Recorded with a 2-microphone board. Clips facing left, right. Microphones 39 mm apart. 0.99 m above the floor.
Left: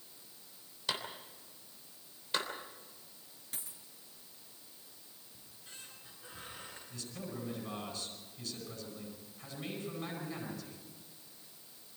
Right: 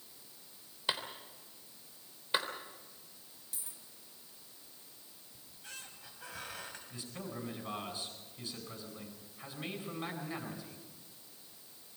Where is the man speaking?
25° right (ahead or behind), 9.5 m.